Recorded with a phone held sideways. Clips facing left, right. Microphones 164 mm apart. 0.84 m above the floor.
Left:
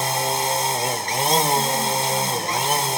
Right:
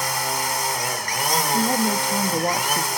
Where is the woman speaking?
45° right (ahead or behind), 1.5 m.